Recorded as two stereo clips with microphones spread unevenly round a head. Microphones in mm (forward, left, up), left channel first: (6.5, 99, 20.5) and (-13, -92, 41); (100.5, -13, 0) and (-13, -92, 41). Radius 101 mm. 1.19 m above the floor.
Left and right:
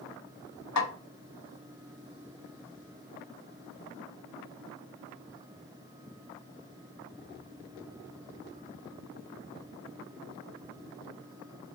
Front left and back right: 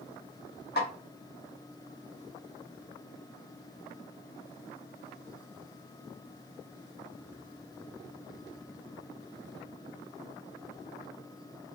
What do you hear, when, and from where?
0.8 s a snare drum: 85° left, 1.3 m